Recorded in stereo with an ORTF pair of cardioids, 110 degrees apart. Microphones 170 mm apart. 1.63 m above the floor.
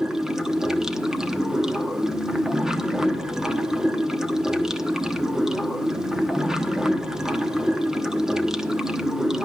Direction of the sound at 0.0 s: 5° right.